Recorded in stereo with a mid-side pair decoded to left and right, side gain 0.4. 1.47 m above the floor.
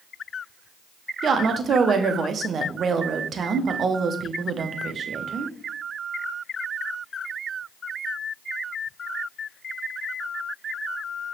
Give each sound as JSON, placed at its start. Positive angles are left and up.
{"t": 1.2, "sound": "a woman speaking", "azimuth_deg": -55, "distance_m": 0.8}